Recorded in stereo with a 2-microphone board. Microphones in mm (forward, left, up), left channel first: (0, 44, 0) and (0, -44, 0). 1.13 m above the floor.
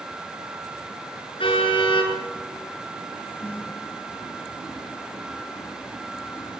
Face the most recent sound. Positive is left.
turn(degrees=-20)  # may be behind; listen again after turning